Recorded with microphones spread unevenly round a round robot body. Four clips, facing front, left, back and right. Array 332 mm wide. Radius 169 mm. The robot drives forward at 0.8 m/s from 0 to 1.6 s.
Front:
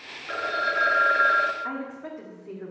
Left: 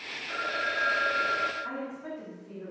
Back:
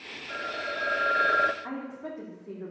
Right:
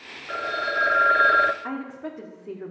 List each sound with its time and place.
0.3 s a phone ringing: 25° right, 1.1 m; by 1.5 s 90° right, 0.5 m
1.6 s a woman speaking: 70° right, 1.8 m